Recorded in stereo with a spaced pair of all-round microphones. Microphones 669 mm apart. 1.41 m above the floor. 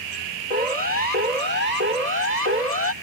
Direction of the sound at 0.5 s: 75° left (ahead or behind).